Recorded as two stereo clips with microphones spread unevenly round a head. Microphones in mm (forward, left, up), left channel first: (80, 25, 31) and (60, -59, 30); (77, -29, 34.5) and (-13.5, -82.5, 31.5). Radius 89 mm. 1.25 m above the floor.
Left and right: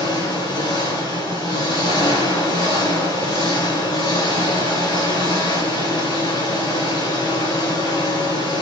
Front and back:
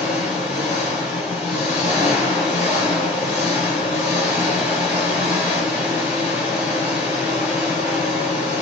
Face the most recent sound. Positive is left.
turn(degrees=60)